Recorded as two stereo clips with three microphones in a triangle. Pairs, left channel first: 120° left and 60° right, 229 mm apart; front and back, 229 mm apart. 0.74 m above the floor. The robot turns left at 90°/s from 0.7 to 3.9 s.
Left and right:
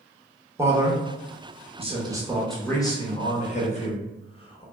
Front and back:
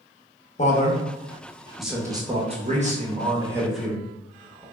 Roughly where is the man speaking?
Ahead.